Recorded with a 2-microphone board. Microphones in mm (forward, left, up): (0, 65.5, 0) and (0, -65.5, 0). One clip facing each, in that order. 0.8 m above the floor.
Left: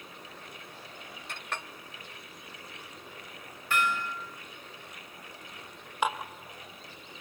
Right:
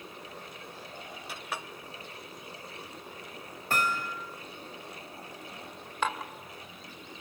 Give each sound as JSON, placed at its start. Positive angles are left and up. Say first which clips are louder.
{"t": 1.3, "sound": "a clink", "louder": "even", "side_deg": -5, "distance_m": 0.8}
{"t": 3.7, "sound": "hammering", "louder": "left 1 dB", "side_deg": -40, "distance_m": 3.0}
{"t": 6.0, "sound": "dishes clattering", "louder": "left 2 dB", "side_deg": 15, "distance_m": 1.8}